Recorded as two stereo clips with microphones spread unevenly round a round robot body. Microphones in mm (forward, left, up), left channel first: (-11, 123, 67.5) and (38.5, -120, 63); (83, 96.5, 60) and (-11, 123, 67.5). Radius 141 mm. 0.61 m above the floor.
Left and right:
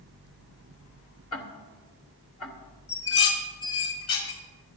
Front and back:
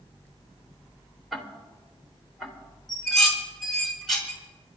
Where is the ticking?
70° left, 2.5 m.